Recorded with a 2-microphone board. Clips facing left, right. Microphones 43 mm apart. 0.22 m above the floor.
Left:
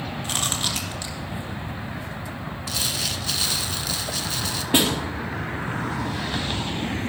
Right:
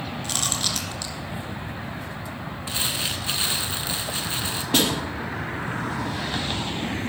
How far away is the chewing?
About 2 m.